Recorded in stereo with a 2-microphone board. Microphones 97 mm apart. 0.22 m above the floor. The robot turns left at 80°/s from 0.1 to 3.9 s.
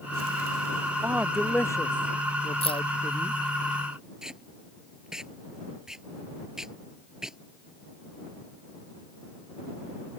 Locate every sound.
1.0 s a man speaking: 155° right; by 3.4 s 15° left
2.6 s keys jangling: 80° left; by 2.8 s 60° left (ahead or behind)
4.2 s tape being pulled: 5° right (ahead or behind)